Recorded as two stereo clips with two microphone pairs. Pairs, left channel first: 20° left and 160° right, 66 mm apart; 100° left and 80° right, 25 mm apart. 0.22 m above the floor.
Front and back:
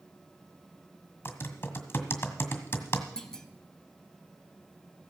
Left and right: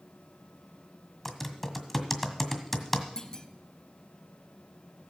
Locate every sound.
1.2 s typing on a keyboard: 15° left, 1.7 m
3.2 s a clunk: 90° left, 0.9 m